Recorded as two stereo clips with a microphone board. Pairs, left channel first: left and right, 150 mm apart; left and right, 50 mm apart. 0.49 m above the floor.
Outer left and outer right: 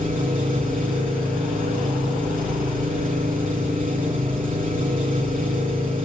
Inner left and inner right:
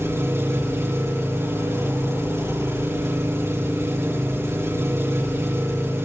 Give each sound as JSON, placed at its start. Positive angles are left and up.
{"t": 0.0, "sound": "an engine running", "side_deg": -65, "distance_m": 9.5}